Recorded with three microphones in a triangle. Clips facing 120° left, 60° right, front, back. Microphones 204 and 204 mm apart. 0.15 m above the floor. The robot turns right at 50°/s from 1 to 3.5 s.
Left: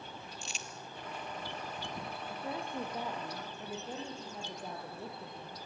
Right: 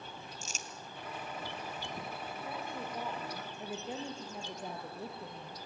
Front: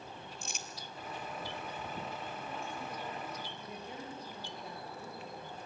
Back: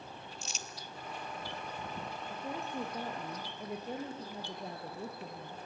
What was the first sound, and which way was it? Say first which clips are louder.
Crumpling: even, even; 20° right.